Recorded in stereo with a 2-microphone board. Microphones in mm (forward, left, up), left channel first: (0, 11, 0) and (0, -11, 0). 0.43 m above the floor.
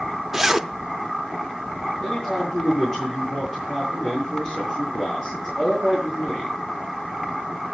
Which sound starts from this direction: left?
A man speaking, at 2.0 s.